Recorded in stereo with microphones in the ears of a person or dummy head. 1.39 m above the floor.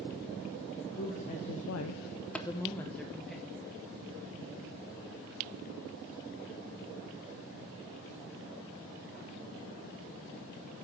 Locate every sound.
0.9 s a woman speaking: 35° left (ahead or behind), 1.2 m; by 3.4 s centre (ahead or behind), 1.8 m
2.4 s tapping: 10° left (ahead or behind), 0.5 m